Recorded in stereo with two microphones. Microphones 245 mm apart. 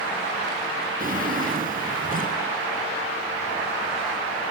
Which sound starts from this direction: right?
A drawer, at 1.0 s.